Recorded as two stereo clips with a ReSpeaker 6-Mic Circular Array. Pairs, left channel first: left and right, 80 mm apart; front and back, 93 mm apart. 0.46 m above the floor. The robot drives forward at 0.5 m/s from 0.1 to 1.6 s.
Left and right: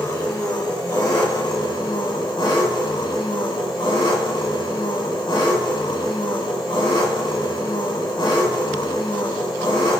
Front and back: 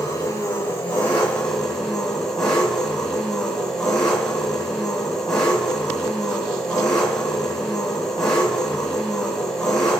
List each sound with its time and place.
0.0 s an engine running: 55° left, 1.5 m; by 10.0 s 85° left, 1.2 m